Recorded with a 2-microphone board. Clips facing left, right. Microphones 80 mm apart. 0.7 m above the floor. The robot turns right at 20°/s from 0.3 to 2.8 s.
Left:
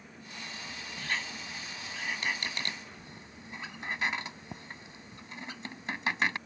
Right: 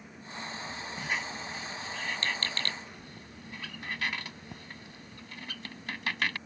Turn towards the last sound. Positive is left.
turn(degrees=20)  # may be behind; listen again after turning